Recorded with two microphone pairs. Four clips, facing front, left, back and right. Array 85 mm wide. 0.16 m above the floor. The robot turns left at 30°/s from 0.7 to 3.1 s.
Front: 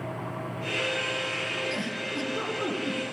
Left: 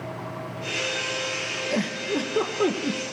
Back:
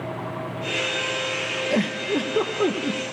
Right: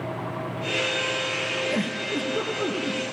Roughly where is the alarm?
I don't hear an alarm.